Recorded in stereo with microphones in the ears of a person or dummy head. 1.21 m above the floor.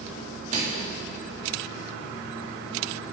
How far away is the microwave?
About 1.6 m.